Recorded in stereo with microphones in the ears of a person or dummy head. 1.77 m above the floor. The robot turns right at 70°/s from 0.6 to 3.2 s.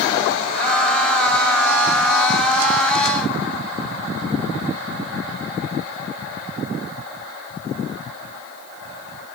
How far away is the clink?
No clink in this recording.